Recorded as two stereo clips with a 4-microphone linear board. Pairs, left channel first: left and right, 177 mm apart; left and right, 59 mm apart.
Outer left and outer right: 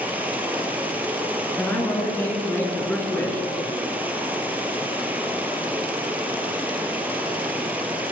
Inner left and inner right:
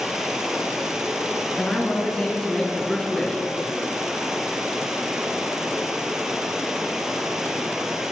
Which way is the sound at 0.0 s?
10° right (ahead or behind).